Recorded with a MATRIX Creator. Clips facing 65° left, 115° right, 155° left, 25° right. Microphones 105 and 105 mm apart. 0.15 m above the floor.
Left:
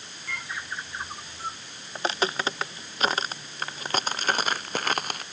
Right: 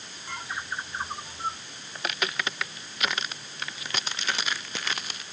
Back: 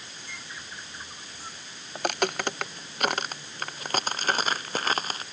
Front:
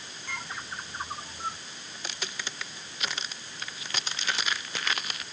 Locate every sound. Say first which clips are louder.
0.3 s a bird: right 1 dB, front 7 dB; 50° right
1.9 s footsteps: left 5 dB, back 14 dB; 125° left; by 5.2 s 105° left